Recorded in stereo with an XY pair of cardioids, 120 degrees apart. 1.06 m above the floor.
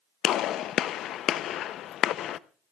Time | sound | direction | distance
0.2 | a gunshot | 65° left | 0.5 m